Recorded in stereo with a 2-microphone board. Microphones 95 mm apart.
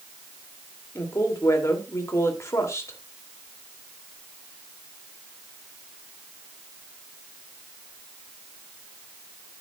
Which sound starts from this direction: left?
A woman speaking, at 0.9 s.